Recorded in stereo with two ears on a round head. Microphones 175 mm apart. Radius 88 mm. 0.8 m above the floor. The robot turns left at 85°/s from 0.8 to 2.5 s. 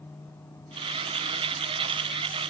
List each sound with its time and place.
Only background noise.